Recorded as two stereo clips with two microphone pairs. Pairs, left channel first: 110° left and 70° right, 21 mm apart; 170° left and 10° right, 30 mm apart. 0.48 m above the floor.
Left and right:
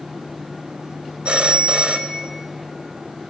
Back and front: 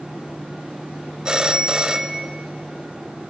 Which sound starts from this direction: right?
A phone ringing, at 1.2 s.